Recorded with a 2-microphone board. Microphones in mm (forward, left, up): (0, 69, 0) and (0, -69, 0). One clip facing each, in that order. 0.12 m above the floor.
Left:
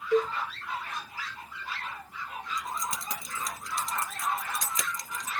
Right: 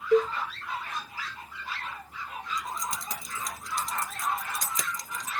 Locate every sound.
0.1 s a cowbell: 35° right (ahead or behind), 0.7 m
2.6 s keys jangling: centre (ahead or behind), 1.6 m